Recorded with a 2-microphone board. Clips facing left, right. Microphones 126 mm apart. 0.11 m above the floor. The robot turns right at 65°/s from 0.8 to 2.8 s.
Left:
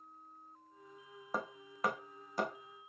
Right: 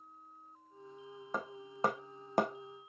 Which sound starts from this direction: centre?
Hammering, at 1.3 s.